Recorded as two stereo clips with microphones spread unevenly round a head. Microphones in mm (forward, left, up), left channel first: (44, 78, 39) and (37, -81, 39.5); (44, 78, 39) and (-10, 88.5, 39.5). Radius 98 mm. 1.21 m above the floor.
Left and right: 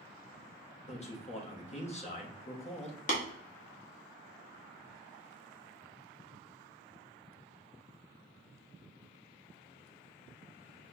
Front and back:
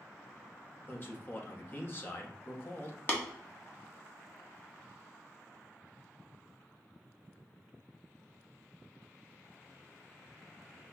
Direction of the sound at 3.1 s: 40° left.